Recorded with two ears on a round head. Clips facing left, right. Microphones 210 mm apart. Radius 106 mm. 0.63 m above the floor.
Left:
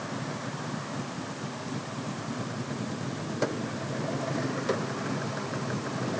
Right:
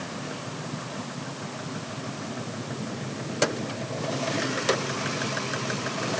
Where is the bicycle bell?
No bicycle bell in this recording.